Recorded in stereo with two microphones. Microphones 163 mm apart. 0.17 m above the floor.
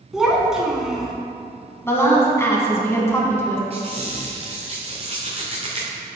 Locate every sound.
0.1 s a child speaking: 5° right (ahead or behind), 1.0 m
1.9 s a woman speaking: 15° left (ahead or behind), 1.0 m
3.7 s a squeak: 40° right (ahead or behind), 1.2 m